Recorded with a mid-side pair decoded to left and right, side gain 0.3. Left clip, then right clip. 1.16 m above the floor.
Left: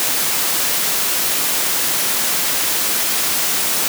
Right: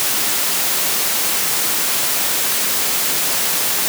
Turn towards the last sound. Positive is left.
No sound to turn to.